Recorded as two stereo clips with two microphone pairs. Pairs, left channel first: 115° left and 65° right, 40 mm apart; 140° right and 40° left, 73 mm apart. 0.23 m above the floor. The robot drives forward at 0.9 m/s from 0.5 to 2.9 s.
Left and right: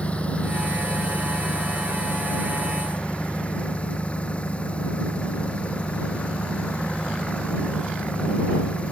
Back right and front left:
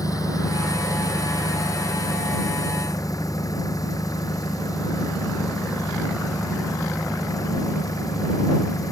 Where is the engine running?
Straight behind.